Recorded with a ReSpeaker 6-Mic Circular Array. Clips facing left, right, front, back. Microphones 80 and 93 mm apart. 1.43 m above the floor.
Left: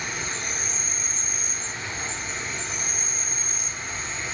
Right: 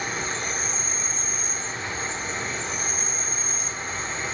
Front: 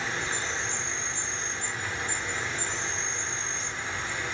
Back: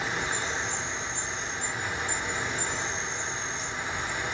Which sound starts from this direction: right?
An insect, at 0.0 s.